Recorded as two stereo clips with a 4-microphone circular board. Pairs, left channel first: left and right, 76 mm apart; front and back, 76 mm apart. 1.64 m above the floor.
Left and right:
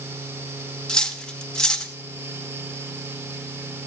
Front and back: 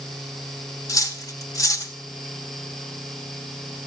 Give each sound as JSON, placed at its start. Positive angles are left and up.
{"t": 0.9, "sound": "cutlery clinking", "azimuth_deg": 10, "distance_m": 1.0}